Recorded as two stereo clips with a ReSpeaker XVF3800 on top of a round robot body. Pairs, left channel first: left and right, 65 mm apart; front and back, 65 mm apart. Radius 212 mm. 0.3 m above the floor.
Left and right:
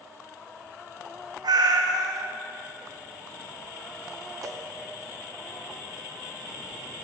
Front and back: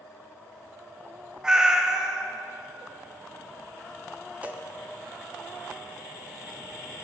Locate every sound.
1.4 s a cat meowing: 100° right, 0.9 m
4.4 s a cowbell: 110° right, 1.1 m